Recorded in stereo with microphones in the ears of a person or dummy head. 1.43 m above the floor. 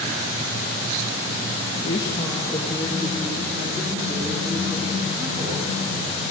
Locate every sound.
1.8 s a woman speaking: 30° left (ahead or behind), 1.9 m; by 6.3 s 15° right (ahead or behind), 6 m